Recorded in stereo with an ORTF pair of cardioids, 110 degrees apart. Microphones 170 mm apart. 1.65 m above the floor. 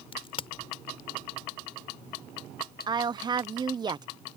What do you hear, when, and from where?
0.1 s a crack: 35° left
2.9 s a woman speaking: 25° right